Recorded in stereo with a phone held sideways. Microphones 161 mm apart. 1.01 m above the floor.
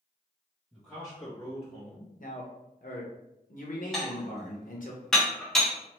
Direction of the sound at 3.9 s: 5° left (ahead or behind).